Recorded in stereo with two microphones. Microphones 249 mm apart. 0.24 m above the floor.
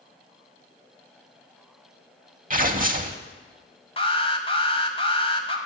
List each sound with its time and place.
2.5 s tearing paper: 35° right (ahead or behind), 0.7 m
4.0 s an alarm: 20° left (ahead or behind), 1.2 m